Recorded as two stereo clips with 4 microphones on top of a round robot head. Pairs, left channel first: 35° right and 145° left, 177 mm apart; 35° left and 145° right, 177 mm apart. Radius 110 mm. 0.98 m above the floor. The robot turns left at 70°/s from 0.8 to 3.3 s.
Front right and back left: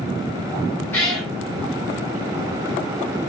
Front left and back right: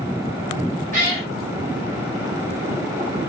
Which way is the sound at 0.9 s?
110° right.